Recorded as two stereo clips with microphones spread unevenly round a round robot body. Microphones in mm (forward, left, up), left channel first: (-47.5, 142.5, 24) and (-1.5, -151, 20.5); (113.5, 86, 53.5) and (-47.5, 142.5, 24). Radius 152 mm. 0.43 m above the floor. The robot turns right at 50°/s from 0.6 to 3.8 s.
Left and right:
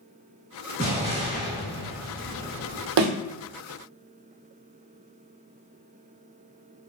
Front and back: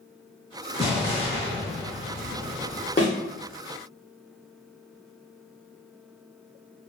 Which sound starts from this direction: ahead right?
An explosion, at 0.8 s.